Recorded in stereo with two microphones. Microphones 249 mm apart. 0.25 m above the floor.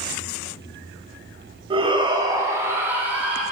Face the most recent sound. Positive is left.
turn(degrees=-5)  # may be behind; listen again after turning